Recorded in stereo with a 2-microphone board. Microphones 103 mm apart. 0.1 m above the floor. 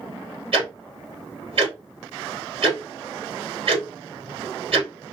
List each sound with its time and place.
0.5 s ticking: 55° right (ahead or behind), 2.5 m